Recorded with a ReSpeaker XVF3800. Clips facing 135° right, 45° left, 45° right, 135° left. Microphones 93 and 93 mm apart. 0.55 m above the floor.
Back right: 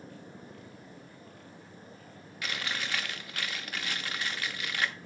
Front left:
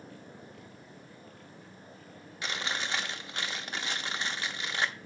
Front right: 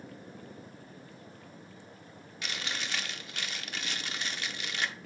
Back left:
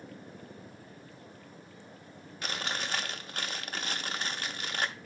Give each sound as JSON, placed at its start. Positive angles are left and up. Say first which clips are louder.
{"t": 2.4, "sound": "chewing", "louder": "front left 1 dB, back left 3 dB", "azimuth_deg": 100, "distance_m": 0.7}